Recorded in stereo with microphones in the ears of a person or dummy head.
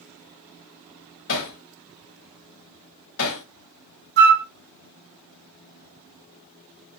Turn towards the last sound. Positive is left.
turn(degrees=-55)  # may be behind; listen again after turning